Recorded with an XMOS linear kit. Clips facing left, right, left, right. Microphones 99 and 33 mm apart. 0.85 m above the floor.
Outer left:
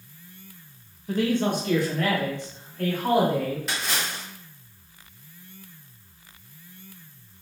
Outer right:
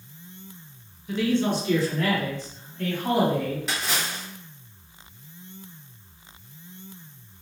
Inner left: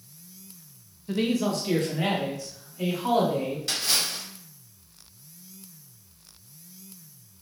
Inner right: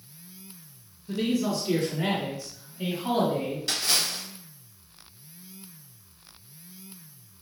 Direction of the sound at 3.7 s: Centre (ahead or behind).